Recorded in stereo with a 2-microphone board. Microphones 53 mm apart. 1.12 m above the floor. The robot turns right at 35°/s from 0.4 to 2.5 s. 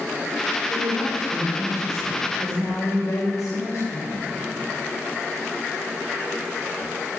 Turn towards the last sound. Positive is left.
turn(degrees=90)